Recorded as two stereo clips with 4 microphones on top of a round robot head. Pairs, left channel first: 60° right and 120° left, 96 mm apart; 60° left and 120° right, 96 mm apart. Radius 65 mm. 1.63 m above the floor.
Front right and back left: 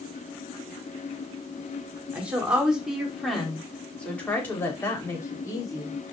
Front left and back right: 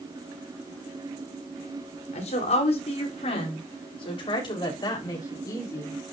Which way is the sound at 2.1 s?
45° left.